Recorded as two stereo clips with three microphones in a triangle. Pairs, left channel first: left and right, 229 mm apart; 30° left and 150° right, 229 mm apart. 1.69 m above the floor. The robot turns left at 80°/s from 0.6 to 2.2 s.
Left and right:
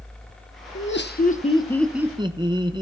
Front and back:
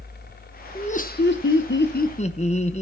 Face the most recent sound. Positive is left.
turn(degrees=-25)